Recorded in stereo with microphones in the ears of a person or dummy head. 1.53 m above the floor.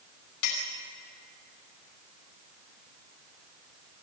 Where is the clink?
75° left (ahead or behind), 5 m.